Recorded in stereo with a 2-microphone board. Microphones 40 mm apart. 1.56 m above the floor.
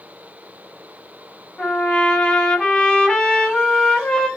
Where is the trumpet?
20° left (ahead or behind), 1.0 m.